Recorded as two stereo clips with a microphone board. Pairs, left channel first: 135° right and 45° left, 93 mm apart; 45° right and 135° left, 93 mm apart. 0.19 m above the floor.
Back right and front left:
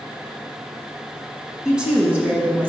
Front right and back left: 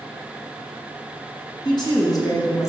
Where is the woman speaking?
35° right, 2 m; by 2.7 s 10° right, 1.6 m.